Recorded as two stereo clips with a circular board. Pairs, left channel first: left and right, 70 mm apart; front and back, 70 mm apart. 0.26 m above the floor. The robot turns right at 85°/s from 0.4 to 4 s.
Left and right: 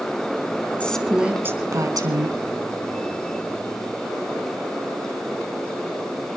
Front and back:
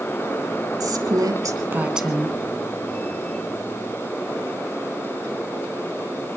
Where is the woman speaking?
160° left, 2.5 m; by 2.4 s 65° right, 2.5 m.